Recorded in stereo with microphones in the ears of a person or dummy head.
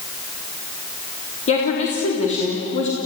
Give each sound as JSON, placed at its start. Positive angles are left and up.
{"t": 1.5, "sound": "a woman speaking", "side_deg": 45, "distance_m": 3.5}